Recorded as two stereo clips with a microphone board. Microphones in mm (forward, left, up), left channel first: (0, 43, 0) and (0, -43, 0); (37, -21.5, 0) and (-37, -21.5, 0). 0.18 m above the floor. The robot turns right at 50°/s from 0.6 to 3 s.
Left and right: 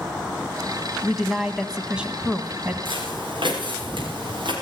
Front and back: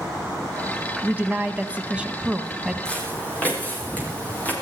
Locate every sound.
1.0 s a woman speaking: 165° left, 1.0 m; by 2.8 s 105° right, 1.0 m
2.9 s footsteps: 80° right, 7.5 m; by 4.5 s 70° right, 6.5 m